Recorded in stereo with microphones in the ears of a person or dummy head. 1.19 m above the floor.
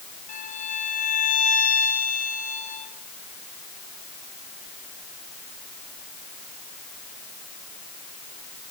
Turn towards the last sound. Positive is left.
turn(degrees=45)  # may be behind; listen again after turning